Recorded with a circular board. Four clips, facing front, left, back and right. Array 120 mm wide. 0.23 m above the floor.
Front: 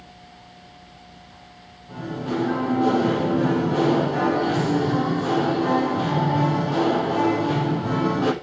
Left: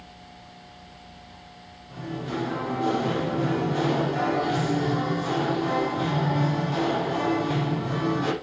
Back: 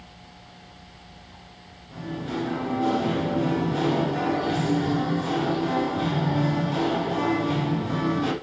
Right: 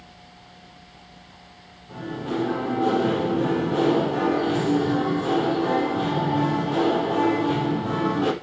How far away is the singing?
About 4 m.